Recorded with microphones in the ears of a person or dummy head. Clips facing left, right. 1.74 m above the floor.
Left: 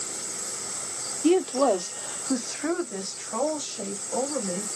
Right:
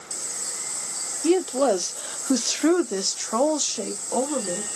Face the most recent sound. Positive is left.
turn(degrees=-80)